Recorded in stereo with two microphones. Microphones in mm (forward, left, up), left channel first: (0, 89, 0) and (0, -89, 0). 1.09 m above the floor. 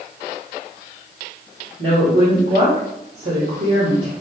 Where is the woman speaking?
80° right, 2 m.